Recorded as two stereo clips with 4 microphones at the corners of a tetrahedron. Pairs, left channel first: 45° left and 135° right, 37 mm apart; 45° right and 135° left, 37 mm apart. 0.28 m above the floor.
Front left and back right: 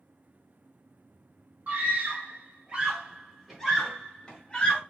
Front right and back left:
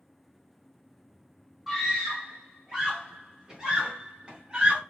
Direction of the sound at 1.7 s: 135° right.